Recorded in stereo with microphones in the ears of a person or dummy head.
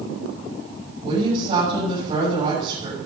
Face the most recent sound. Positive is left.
turn(degrees=-40)  # may be behind; listen again after turning